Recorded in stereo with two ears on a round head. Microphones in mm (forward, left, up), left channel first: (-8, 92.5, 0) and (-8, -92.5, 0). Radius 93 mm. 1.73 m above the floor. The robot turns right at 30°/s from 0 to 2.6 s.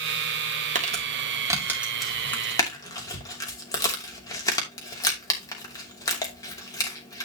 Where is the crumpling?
40° right (ahead or behind), 2.5 m; by 7.3 s 15° left (ahead or behind), 2.5 m.